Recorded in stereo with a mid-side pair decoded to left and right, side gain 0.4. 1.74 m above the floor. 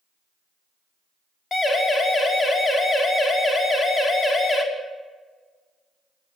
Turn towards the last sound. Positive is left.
turn(degrees=35)